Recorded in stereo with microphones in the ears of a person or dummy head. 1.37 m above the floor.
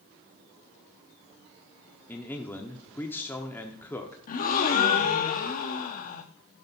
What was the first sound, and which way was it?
A man speaking, 10° left (ahead or behind).